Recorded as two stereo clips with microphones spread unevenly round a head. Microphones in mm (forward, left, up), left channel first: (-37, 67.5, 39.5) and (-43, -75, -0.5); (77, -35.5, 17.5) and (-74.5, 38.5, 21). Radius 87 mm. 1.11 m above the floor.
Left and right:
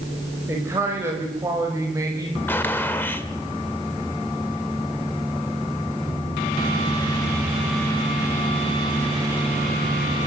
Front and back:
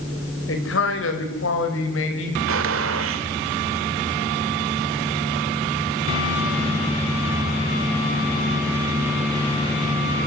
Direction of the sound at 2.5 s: 160° left.